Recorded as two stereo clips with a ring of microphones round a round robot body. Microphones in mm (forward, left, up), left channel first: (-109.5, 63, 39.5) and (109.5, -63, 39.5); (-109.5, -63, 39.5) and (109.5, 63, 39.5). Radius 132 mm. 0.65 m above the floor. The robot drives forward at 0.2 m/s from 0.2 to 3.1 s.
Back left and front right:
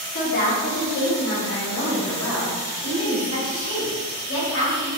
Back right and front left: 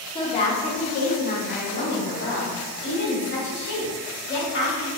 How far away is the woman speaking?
About 0.6 m.